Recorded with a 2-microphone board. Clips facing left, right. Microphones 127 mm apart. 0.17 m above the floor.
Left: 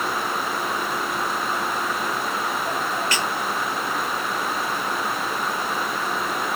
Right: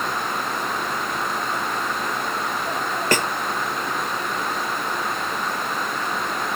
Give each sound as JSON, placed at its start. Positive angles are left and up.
{"t": 3.1, "sound": "a snare drum", "side_deg": -50}